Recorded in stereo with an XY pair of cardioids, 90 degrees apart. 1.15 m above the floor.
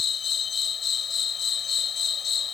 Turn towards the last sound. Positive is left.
turn(degrees=65)